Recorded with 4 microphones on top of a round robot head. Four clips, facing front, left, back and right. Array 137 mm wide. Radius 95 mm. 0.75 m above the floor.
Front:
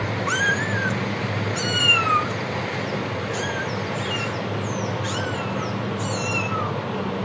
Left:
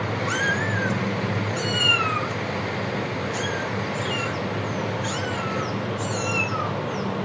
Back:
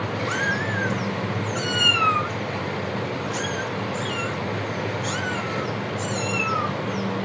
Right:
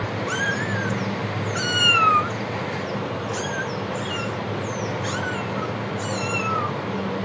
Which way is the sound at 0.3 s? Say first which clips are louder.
Even, front 4 dB; 5° left.